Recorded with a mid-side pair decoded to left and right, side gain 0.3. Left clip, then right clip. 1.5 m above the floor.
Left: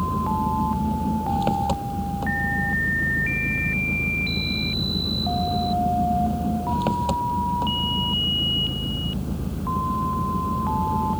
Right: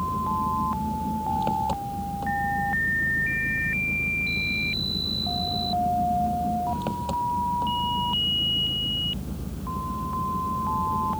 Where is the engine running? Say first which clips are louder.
Left 1 dB; 50° left.